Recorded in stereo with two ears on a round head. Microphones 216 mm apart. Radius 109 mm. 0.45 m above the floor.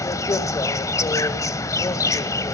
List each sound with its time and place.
0.0 s an insect: 15° left (ahead or behind), 1.0 m